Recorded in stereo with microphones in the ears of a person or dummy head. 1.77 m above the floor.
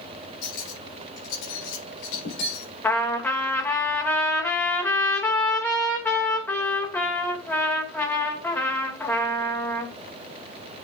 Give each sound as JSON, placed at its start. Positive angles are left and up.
{"t": 0.4, "sound": "cutlery clinking", "side_deg": 70, "distance_m": 4.5}
{"t": 2.8, "sound": "a trumpet", "side_deg": 15, "distance_m": 2.5}